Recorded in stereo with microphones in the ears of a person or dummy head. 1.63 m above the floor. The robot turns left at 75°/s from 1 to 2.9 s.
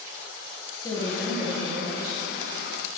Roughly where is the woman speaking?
Ahead.